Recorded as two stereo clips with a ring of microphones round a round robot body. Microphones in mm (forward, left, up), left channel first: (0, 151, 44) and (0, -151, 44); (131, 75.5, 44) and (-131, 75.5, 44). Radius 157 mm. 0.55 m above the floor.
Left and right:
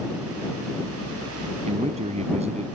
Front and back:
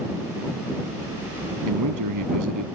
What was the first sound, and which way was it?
A man speaking, 160° right.